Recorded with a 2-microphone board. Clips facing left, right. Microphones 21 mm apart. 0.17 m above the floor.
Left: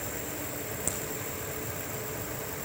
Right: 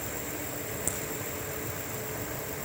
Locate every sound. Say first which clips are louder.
0.9 s a crack: left 1 dB; 5° left (ahead or behind), 4.5 m